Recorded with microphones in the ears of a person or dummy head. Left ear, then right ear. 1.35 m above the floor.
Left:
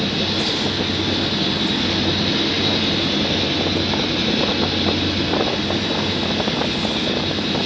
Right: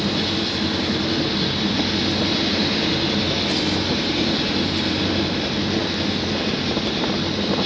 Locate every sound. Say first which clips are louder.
0.0 s an engine running: left 2 dB; 10° right (ahead or behind), 9 m